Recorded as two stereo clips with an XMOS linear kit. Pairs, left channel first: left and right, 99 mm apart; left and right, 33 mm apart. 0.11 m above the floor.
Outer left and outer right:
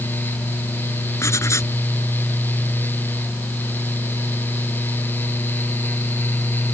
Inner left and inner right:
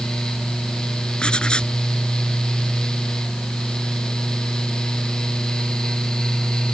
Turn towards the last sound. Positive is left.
turn(degrees=30)  # may be behind; listen again after turning